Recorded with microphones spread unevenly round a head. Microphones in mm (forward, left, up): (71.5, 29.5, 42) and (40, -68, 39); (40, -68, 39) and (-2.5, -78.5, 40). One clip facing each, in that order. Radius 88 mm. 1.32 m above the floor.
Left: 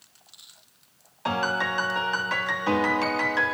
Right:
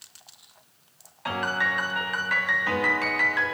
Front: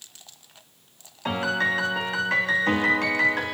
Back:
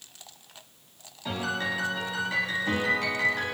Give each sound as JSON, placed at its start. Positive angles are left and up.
{"t": 1.2, "sound": "a piano", "azimuth_deg": 25, "distance_m": 1.5}